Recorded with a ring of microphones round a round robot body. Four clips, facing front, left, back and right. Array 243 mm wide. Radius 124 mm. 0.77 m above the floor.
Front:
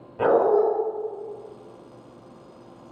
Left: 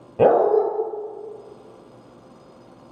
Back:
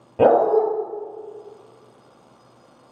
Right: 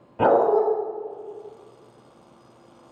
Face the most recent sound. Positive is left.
turn(degrees=135)